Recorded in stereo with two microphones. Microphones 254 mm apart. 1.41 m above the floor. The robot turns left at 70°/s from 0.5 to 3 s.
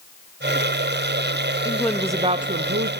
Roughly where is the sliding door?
No sliding door in this recording.